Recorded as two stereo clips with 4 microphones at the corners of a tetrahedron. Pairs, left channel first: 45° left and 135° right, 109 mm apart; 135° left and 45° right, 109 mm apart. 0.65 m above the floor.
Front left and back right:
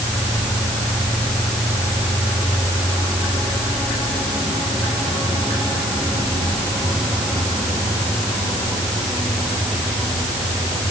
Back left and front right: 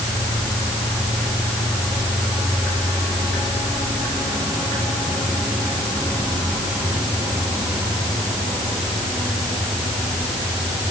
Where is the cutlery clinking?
No cutlery clinking in this recording.